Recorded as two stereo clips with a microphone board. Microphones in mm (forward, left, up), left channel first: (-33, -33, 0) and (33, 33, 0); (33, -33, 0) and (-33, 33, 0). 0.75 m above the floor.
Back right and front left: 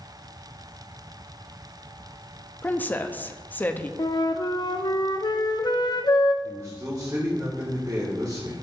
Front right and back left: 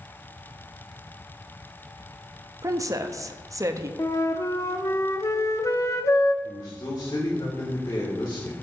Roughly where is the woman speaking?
Behind.